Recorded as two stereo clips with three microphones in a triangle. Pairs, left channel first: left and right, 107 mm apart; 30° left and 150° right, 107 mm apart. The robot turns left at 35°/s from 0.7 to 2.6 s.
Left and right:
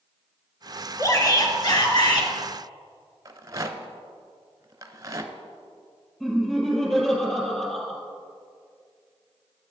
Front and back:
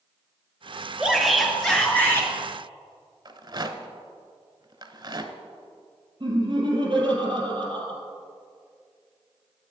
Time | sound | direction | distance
1.0 | a shout | 135° left | 2.0 m
3.2 | a rattle | 130° right | 0.7 m
6.2 | laughter | 175° left | 4 m